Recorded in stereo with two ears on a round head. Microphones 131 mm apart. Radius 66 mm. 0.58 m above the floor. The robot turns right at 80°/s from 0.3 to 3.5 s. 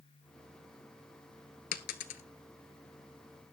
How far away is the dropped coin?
About 1.0 m.